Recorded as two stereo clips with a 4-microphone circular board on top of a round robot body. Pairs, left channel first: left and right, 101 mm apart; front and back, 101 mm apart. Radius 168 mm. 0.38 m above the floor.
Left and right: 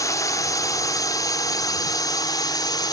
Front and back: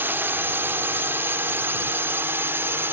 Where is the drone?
125° left; by 2.9 s 120° left.